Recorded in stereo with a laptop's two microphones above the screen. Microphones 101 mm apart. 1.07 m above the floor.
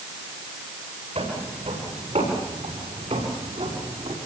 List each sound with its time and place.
1.1 s footsteps: 70° right (ahead or behind), 8.5 m